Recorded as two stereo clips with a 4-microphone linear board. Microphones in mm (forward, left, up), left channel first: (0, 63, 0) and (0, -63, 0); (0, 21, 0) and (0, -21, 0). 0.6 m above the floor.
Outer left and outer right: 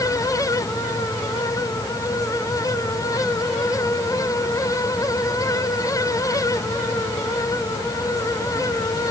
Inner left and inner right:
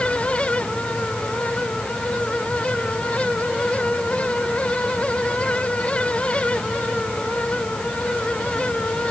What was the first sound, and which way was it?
Only background noise.